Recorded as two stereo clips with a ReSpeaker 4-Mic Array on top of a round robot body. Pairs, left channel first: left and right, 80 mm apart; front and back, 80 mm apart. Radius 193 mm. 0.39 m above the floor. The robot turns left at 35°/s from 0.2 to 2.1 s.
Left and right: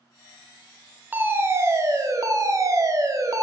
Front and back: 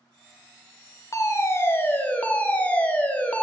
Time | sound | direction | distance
1.1 | a fire alarm | 30° right | 2.5 m